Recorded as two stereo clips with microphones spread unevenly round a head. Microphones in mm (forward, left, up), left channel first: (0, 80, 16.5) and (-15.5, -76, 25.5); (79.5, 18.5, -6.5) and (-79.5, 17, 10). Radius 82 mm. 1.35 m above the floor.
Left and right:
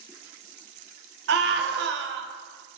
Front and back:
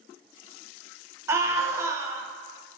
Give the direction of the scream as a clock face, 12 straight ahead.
4 o'clock.